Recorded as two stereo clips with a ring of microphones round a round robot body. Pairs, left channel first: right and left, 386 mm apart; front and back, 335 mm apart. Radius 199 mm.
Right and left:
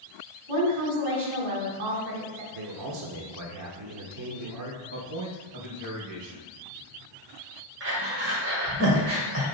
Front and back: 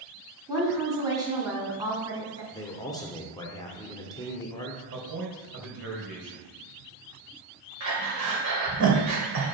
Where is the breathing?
145° left, 2 m.